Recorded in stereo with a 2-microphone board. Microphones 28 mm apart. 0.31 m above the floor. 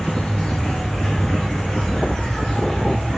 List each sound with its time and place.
0.0 s an insect: 25° left (ahead or behind), 1.5 m